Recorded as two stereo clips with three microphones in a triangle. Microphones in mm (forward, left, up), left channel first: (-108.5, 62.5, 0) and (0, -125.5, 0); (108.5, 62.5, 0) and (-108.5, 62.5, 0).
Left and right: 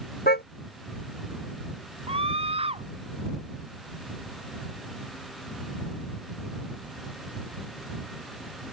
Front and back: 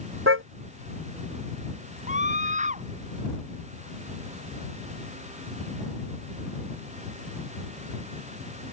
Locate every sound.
0.3 s a car horn: 165° left
2.1 s a scream: 125° right